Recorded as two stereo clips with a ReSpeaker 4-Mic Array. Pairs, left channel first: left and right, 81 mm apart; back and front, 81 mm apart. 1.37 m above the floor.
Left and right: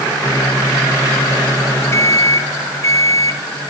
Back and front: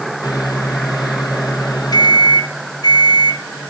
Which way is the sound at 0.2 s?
145° left.